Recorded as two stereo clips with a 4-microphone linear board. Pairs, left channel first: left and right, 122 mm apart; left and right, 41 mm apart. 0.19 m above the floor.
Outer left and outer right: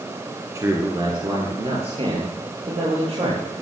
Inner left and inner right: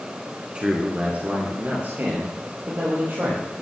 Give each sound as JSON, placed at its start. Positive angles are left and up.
{"t": 0.6, "sound": "a man speaking", "side_deg": -25, "distance_m": 1.8}